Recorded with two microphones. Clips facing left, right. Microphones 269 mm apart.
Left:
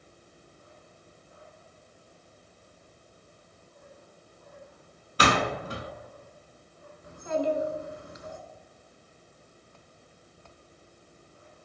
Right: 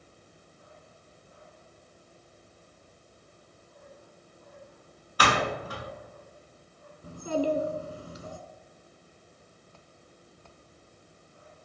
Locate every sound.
5.2 s a door slam: 25° left (ahead or behind), 1.1 m
7.0 s a child speaking: 40° right (ahead or behind), 1.0 m